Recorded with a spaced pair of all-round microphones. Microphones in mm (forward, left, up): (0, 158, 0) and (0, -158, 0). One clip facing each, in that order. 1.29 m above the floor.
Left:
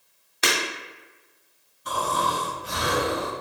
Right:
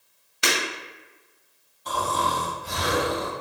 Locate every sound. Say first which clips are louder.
0.4 s breaking glass: even; 15° right (ahead or behind), 1.8 m
1.9 s snoring: even; 15° left (ahead or behind), 1.7 m